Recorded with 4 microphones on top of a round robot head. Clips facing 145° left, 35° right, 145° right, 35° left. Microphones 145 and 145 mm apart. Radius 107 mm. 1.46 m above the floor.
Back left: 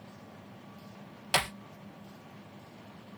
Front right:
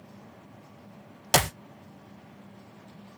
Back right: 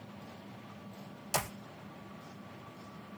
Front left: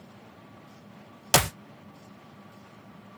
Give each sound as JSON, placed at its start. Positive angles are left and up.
{"t": 1.3, "sound": "a clap", "azimuth_deg": 10}